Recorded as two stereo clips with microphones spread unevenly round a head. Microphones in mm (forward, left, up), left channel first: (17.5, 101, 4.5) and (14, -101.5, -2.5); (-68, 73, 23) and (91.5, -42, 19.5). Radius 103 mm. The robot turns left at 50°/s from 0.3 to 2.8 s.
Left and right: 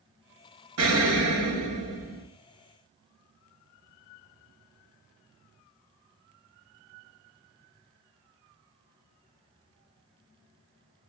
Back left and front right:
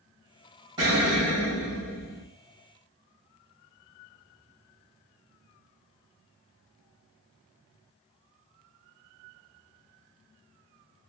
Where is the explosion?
105° right, 1.4 m; by 2.2 s straight behind, 1.4 m.